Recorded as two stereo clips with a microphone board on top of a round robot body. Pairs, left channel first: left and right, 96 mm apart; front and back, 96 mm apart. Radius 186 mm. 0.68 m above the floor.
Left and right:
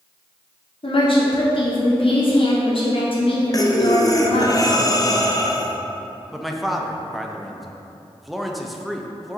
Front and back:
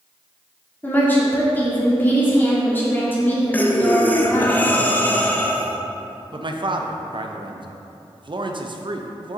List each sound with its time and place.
0.8 s a woman speaking: 70° left, 2 m
3.5 s breathing: 65° left, 0.9 m
6.3 s a man speaking: straight behind, 0.8 m